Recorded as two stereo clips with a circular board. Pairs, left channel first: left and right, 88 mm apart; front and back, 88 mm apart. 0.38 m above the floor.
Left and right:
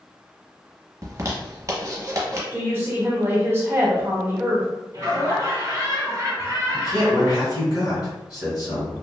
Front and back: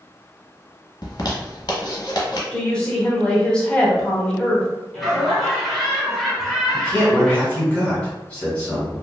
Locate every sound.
1.0 s a zipper: 35° right, 0.8 m
2.5 s a woman speaking: 70° right, 0.9 m
4.9 s laughter: 90° right, 0.9 m
6.7 s a man speaking: 70° left, 1.6 m